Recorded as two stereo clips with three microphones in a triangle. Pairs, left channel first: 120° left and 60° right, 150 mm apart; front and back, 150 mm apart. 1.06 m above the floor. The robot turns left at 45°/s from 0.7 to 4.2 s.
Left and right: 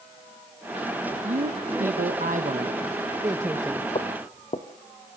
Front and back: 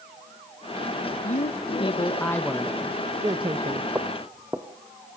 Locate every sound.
1.2 s a man speaking: 25° right, 1.0 m; by 3.9 s 145° right, 1.0 m
4.0 s footsteps: 120° left, 1.5 m; by 4.7 s 110° left, 1.5 m